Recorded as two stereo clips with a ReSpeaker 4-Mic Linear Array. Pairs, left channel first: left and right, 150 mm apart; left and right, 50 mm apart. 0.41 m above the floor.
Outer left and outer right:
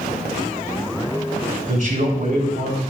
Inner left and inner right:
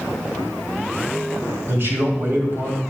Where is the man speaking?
60° right (ahead or behind), 2.5 m.